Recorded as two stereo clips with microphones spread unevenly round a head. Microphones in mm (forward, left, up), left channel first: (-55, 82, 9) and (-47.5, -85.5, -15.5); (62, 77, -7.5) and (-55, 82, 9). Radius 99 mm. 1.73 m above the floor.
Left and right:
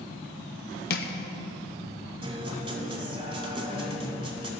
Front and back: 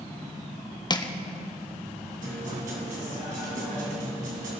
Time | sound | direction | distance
0.9 | crushing | 55° left | 1.0 m
2.2 | a guitar | 150° right | 2.5 m